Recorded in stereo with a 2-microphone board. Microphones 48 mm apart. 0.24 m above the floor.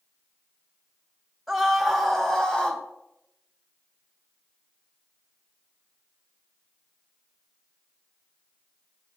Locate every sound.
1.5 s a scream: centre (ahead or behind), 1.8 m; by 2.8 s 25° left (ahead or behind), 1.7 m